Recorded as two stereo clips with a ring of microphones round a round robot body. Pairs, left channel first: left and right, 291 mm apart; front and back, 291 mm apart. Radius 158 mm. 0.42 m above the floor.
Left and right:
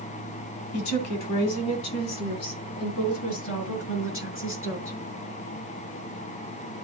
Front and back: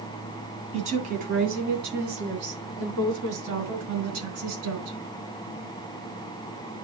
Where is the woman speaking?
110° left, 2.5 m; by 5.0 s 140° left, 4.5 m.